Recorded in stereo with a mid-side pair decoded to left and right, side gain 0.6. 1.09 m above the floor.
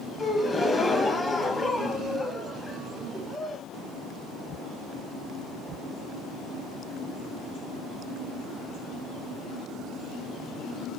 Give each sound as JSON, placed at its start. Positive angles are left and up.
{"t": 0.2, "sound": "a gasp", "azimuth_deg": 15, "distance_m": 0.7}